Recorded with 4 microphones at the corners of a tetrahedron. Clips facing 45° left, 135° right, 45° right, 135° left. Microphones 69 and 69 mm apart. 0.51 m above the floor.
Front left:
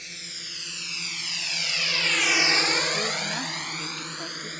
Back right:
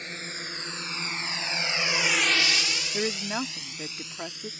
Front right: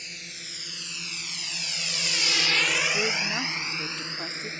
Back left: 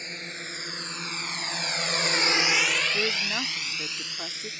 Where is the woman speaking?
150° right.